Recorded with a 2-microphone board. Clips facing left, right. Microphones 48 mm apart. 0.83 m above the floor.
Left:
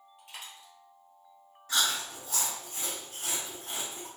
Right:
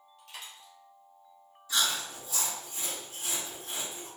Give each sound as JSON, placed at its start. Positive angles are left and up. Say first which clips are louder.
{"t": 0.2, "sound": "a dropped coin", "louder": "even", "side_deg": 20, "distance_m": 1.8}
{"t": 1.7, "sound": "chewing", "louder": "left 1 dB", "side_deg": 55, "distance_m": 1.6}